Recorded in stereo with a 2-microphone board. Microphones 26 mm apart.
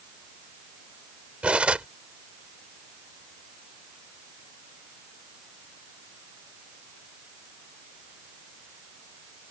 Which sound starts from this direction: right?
Cutlery clinking, at 1.4 s.